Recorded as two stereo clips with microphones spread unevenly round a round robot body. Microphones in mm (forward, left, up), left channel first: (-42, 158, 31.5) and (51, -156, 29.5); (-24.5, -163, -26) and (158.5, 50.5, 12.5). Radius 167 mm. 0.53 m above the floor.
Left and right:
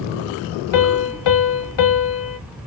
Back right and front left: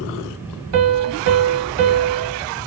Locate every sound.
0.7 s a piano: 85° left, 0.6 m